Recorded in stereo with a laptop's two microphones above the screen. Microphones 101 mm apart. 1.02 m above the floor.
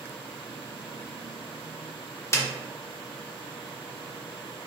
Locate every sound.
2.3 s a snare drum: 25° left (ahead or behind), 0.7 m